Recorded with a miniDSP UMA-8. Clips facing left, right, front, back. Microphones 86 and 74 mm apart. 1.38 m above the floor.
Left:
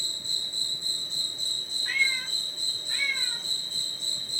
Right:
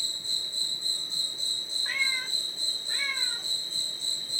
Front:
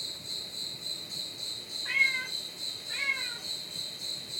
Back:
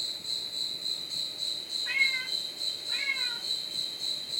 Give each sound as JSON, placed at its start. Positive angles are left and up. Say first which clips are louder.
{"t": 0.0, "sound": "an insect", "louder": "left 1 dB, back 2 dB", "azimuth_deg": 70, "distance_m": 1.0}
{"t": 1.9, "sound": "a cat meowing", "louder": "left 3 dB, front 1 dB", "azimuth_deg": -35, "distance_m": 1.6}